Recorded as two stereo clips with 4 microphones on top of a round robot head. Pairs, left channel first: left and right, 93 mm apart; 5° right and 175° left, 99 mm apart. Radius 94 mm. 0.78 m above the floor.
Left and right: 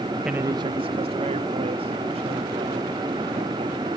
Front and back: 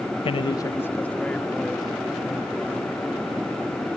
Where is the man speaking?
5° right; by 4.0 s 100° right.